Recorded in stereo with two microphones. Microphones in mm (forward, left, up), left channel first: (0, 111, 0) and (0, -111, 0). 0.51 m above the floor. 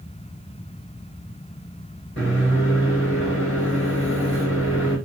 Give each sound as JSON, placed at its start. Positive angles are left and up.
{"t": 2.2, "sound": "a microwave", "side_deg": 60, "distance_m": 1.8}